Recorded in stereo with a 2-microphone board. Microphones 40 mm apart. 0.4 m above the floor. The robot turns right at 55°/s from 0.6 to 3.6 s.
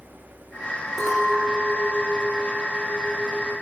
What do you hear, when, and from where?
1.0 s a clink: 5° left (ahead or behind), 0.7 m; by 3.5 s 20° right (ahead or behind), 0.7 m